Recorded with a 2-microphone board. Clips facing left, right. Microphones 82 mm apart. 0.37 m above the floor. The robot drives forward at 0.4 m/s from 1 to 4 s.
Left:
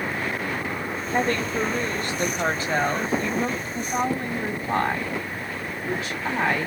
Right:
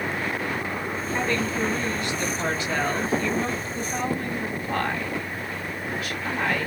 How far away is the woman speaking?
About 1.2 m.